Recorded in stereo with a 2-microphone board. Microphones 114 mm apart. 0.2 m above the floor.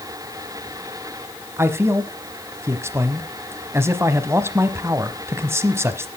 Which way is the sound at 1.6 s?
25° right (ahead or behind).